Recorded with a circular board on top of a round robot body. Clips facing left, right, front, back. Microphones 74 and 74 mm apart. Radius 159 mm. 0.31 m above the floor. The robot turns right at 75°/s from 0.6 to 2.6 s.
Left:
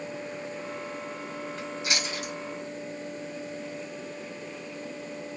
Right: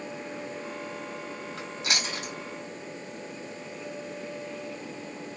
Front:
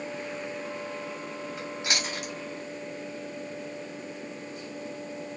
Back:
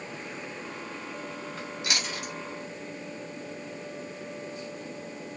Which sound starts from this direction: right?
Chewing, at 1.6 s.